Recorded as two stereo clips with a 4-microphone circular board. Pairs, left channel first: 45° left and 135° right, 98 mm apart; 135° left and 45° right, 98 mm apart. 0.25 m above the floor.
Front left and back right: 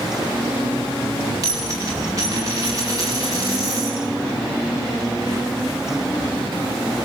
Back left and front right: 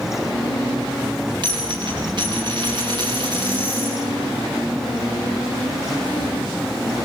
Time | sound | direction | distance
1.4 | a dropped coin | 85° right | 7 m